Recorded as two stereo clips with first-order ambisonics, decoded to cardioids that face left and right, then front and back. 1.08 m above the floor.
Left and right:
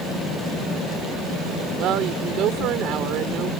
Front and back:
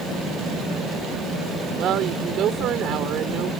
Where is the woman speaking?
130° right.